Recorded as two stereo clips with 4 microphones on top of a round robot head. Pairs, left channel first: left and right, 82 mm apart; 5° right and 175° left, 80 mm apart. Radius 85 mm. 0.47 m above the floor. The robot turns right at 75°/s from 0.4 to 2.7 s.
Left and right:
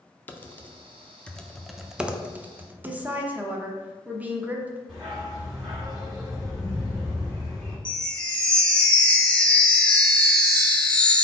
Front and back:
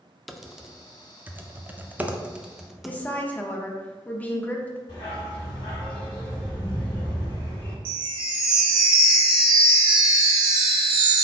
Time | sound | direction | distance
0.3 | typing on a keyboard | 85° left | 0.6 m
2.9 | a woman speaking | 45° right | 0.8 m
4.9 | a dog barking | 5° right | 1.7 m
7.8 | a chime | 165° left | 0.6 m